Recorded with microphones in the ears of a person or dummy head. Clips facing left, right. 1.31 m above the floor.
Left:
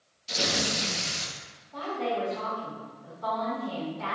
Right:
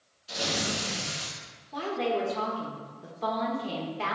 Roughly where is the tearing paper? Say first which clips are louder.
Left 1 dB; left.